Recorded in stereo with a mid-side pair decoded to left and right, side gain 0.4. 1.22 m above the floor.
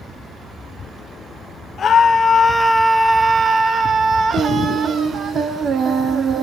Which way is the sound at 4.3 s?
60° right.